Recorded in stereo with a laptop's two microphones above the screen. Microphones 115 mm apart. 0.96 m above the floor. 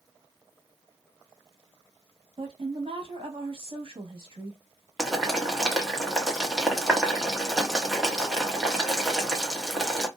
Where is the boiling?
Centre (ahead or behind), 1.0 m.